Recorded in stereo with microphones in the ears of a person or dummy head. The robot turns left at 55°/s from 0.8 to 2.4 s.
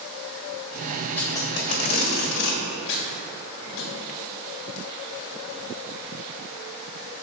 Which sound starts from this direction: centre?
Tape being pulled, at 1.2 s.